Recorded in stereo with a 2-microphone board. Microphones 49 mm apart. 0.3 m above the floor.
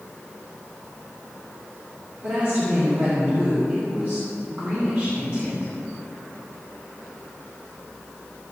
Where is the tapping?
I don't hear tapping.